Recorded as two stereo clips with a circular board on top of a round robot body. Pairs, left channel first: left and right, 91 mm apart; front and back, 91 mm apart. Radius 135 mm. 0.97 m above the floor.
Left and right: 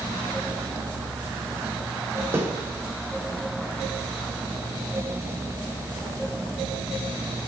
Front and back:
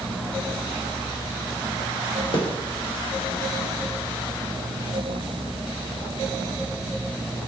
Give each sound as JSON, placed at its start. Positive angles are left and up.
{"t": 2.3, "sound": "a snare drum", "azimuth_deg": -25, "distance_m": 2.5}